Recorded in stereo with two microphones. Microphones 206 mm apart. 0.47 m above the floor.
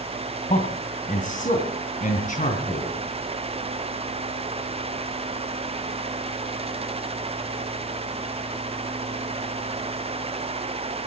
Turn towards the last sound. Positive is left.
turn(degrees=35)  # may be behind; listen again after turning